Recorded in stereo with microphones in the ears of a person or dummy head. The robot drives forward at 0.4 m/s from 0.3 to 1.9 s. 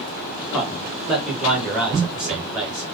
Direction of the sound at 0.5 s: Centre (ahead or behind).